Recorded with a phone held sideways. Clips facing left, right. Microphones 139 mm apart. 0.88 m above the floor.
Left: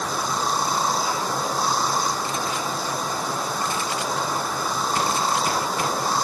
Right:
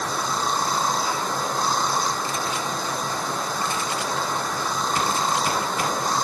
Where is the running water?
5° left (ahead or behind).